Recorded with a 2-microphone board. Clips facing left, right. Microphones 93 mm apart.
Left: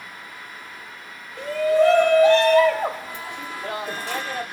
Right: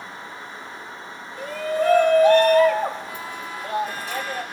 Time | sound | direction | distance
1.4 | a shout | 85° left | 1.9 m